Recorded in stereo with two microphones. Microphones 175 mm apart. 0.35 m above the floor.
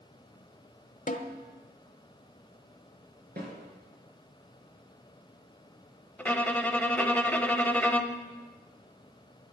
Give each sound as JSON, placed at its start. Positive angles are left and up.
{"t": 1.1, "sound": "a snare drum", "side_deg": 50, "distance_m": 1.0}
{"t": 3.4, "sound": "a snare drum", "side_deg": -65, "distance_m": 5.0}
{"t": 6.2, "sound": "a violin", "side_deg": 10, "distance_m": 0.8}